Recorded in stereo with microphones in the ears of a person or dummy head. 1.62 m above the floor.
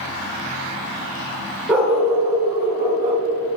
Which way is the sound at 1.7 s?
5° right (ahead or behind).